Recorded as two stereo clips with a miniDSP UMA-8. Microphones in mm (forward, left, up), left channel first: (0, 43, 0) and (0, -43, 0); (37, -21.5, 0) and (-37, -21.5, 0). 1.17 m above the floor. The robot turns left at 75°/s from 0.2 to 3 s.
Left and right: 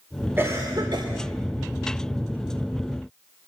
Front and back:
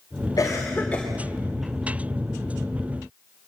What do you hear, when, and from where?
0.4 s a cough: 25° right, 3 m; by 1.1 s 80° right, 3 m